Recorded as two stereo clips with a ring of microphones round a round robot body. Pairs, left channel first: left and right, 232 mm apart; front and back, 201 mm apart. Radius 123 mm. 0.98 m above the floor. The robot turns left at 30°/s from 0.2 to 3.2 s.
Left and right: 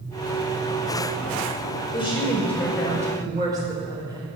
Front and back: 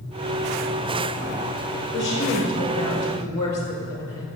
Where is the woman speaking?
25° left, 4.5 m; by 4.3 s 15° right, 4.5 m.